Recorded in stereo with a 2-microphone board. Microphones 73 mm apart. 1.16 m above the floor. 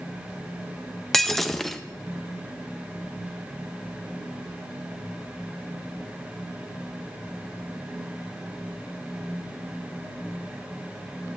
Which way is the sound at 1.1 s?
5° left (ahead or behind).